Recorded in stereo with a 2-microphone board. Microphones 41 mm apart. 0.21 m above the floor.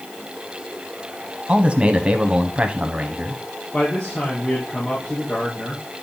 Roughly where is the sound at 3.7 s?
Centre.